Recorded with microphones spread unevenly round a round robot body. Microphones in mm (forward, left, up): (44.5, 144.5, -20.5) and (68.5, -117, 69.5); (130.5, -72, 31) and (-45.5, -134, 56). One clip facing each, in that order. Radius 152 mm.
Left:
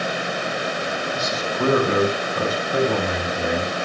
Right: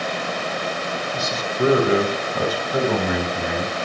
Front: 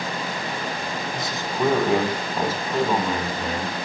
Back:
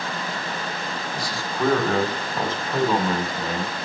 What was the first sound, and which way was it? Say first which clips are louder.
A man speaking: right 3 dB, front 1 dB; 45° right.